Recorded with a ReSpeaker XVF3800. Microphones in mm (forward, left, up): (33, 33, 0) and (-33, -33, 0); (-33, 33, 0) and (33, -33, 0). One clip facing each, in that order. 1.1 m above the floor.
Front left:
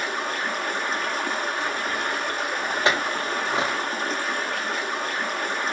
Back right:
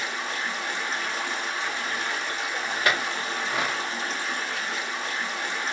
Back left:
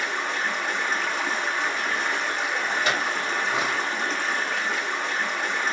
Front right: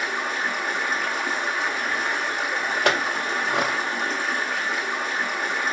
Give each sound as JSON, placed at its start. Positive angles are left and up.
{"t": 0.0, "sound": "running water", "azimuth_deg": 40, "distance_m": 0.8}
{"t": 2.9, "sound": "a clink", "azimuth_deg": -20, "distance_m": 0.5}